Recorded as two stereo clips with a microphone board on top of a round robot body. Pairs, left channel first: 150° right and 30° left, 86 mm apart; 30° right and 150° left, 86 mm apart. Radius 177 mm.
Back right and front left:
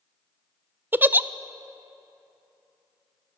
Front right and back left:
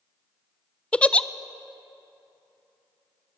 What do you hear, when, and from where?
0.9 s a giggle: 25° left, 0.6 m